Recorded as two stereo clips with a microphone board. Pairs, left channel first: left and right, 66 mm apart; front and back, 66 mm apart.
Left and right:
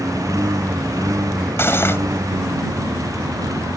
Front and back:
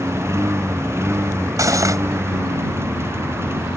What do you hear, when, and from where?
0.0 s a lawn mower: 130° right; by 3.8 s 125° right
1.6 s cutlery clinking: 145° left